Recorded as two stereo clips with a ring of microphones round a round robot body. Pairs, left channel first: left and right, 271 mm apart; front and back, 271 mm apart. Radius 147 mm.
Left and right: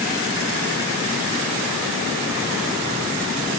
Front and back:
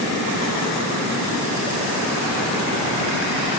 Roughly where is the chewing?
I don't hear chewing.